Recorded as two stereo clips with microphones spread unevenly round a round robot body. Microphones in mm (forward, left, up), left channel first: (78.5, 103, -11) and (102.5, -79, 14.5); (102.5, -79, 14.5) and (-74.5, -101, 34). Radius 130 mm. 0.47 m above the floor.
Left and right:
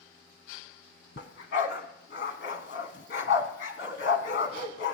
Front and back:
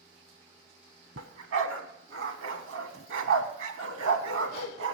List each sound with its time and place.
1.2 s a dog barking: 150° left, 0.9 m